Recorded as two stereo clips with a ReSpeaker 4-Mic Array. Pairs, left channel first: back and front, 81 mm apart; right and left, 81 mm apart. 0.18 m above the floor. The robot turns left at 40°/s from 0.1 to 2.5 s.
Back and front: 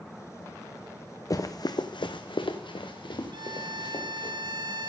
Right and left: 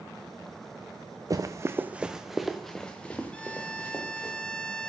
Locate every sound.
1.3 s running footsteps: 135° left, 0.9 m; by 4.3 s 155° right, 3 m
3.3 s a violin: 15° right, 0.6 m